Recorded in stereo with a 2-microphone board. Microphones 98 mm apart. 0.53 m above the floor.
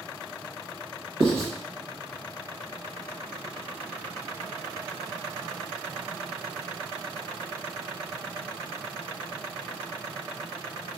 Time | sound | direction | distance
1.2 | writing | 80° right | 0.8 m